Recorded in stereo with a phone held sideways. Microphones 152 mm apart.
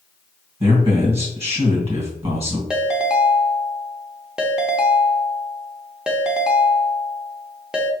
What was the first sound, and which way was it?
A man speaking, 40° right (ahead or behind).